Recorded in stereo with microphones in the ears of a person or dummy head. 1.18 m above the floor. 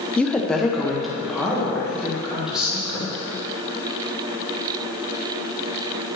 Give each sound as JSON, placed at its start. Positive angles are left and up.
{"t": 0.2, "sound": "a woman speaking", "side_deg": 5, "distance_m": 0.6}